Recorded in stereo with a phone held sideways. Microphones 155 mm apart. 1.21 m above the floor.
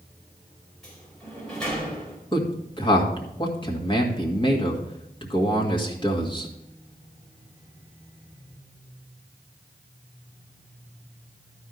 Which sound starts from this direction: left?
A man speaking, at 2.3 s.